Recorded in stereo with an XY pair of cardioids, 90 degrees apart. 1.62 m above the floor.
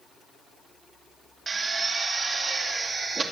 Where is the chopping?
No chopping in this recording.